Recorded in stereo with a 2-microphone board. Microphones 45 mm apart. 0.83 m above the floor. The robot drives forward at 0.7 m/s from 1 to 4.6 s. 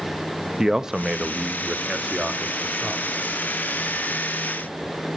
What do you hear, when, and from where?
0.6 s a man speaking: 15° right (ahead or behind), 0.6 m; by 3.1 s 5° right (ahead or behind), 1.9 m